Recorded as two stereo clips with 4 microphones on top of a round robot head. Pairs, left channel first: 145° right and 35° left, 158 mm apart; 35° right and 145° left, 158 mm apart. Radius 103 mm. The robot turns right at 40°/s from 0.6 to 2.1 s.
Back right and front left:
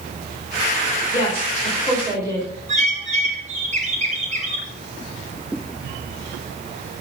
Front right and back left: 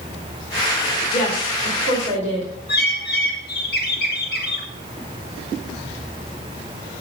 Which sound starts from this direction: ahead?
A bird, at 2.7 s.